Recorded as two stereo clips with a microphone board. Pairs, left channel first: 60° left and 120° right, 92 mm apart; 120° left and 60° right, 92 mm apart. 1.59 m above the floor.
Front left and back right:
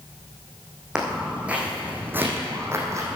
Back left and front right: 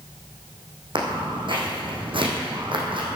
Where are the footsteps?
40° right, 4.5 m; by 3.2 s 70° right, 3.5 m.